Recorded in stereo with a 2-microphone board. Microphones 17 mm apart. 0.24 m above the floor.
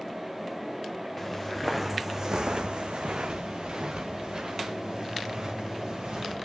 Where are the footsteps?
5° left (ahead or behind), 1.7 m; by 6.3 s 50° right (ahead or behind), 5 m.